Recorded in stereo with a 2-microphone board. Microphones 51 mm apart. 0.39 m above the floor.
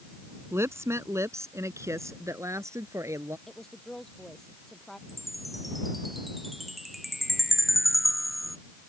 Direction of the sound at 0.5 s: 60° right (ahead or behind).